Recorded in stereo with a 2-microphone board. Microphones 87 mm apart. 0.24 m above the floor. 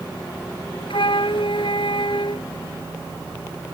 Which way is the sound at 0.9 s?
70° left (ahead or behind).